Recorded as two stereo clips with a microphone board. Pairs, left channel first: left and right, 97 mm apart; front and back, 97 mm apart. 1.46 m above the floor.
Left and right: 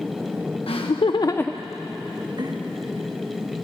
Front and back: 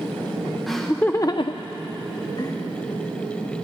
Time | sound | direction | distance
0.7 | laughter | 90° left | 1.1 m